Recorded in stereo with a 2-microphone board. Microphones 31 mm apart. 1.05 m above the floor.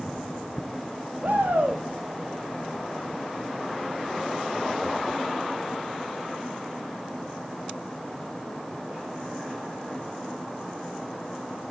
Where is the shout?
75° right (ahead or behind), 2 m.